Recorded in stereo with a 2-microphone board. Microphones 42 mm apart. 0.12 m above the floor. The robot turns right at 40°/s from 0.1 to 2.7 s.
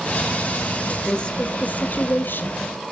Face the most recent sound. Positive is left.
turn(degrees=95)